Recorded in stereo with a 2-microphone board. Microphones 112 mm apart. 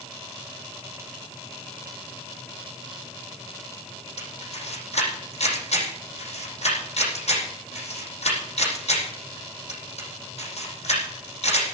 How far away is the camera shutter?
About 9 m.